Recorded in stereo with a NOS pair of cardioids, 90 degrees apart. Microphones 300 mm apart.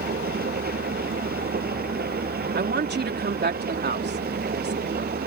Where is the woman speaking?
30° right.